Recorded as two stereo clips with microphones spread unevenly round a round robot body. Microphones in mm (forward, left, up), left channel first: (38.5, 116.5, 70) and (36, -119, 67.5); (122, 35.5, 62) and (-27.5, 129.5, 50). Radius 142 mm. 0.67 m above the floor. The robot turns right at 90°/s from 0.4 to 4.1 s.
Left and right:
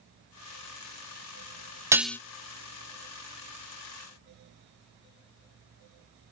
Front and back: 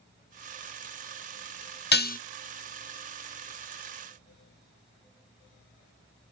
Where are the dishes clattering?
15° right, 0.6 m; by 2.2 s 10° left, 0.6 m.